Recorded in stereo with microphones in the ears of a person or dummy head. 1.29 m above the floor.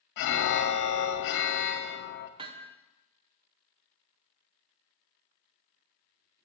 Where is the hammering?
20° right (ahead or behind), 0.6 m.